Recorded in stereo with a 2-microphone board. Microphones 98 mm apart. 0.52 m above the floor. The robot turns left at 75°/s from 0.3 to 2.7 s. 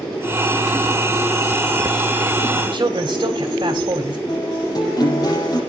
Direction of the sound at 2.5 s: 40° right (ahead or behind).